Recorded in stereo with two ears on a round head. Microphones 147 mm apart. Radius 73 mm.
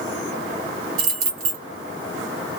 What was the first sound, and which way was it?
Keys jangling, 60° right (ahead or behind).